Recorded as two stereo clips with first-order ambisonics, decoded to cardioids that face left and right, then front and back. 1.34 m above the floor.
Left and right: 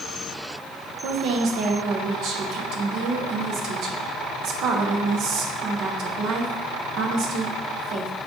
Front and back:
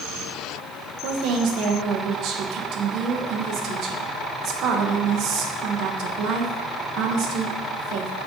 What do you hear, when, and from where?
1.0 s a woman speaking: 135° right, 1.0 m